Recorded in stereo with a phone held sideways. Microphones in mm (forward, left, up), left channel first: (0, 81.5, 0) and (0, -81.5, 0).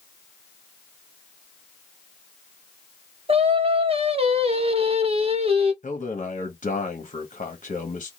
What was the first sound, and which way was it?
Singing, 40° right (ahead or behind).